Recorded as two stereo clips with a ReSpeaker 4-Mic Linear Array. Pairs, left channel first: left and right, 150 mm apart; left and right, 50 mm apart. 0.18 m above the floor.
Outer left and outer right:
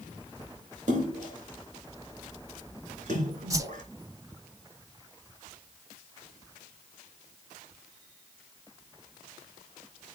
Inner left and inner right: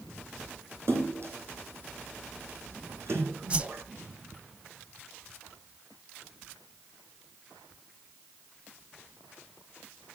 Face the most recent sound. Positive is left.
turn(degrees=-20)  # may be behind; listen again after turning